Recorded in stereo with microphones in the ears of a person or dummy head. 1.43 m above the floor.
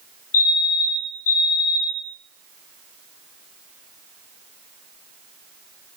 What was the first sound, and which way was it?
A fire alarm, 75° left (ahead or behind).